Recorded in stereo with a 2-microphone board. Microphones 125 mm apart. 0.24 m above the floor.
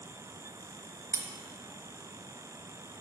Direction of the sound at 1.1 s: 25° right (ahead or behind).